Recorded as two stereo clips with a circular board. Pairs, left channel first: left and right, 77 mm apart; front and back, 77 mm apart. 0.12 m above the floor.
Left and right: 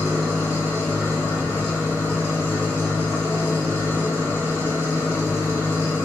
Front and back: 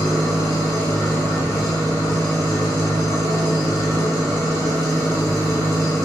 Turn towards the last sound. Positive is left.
turn(degrees=-25)